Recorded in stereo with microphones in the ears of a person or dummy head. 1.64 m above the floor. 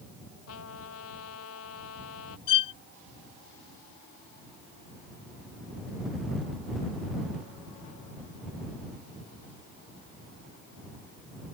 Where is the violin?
30° left (ahead or behind).